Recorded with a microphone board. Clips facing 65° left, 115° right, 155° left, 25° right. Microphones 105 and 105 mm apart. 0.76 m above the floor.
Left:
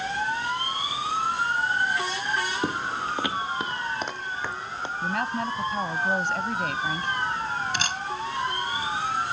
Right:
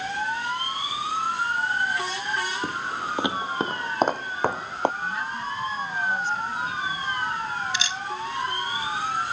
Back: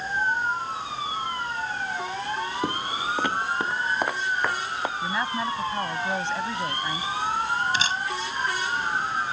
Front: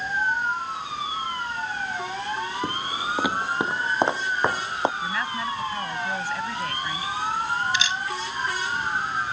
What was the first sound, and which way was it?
Footsteps, 100° left.